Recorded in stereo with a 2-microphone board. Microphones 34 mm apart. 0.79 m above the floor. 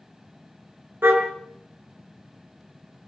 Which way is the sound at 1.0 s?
80° right.